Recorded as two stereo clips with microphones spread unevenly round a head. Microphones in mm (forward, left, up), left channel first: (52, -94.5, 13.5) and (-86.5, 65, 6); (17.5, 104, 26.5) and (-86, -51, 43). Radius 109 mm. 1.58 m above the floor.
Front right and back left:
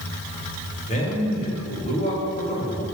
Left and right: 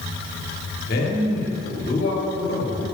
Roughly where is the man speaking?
Ahead.